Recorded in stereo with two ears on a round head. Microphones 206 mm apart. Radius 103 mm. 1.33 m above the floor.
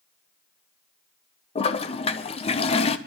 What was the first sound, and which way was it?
A toilet flushing, 25° left (ahead or behind).